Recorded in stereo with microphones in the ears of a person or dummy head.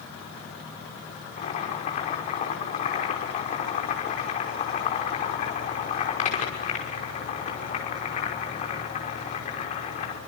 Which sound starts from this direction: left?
Boiling, at 1.4 s.